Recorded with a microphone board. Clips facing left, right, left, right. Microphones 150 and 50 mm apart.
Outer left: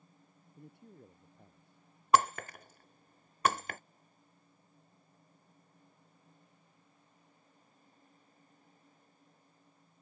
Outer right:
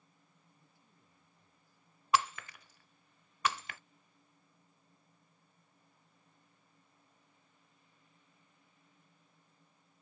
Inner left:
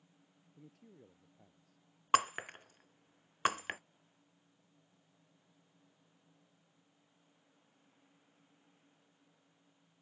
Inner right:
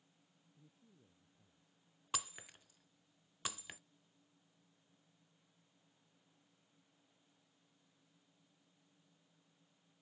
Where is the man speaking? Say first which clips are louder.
Outer left 15 dB, inner left 11 dB; 70° left (ahead or behind); by 1.8 s 65° left (ahead or behind).